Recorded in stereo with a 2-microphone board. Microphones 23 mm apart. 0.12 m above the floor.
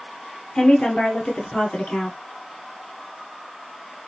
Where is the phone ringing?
No phone ringing in this recording.